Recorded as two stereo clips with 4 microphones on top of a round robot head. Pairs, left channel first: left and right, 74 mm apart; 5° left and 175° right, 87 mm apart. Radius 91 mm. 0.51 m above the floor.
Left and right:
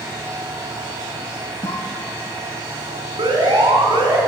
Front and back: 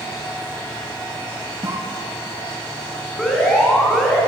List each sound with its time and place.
1.6 s a cough: 130° left, 5 m
3.2 s an alarm: 85° right, 5.5 m